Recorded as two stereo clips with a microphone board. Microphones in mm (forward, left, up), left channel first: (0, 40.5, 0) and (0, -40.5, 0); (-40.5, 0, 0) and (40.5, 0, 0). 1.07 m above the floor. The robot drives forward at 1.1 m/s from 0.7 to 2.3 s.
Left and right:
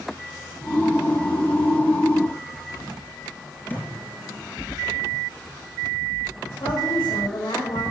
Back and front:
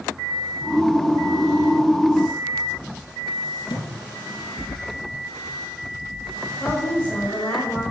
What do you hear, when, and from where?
3.7 s a thud: 160° left, 4.5 m
6.6 s a woman speaking: 105° left, 4.5 m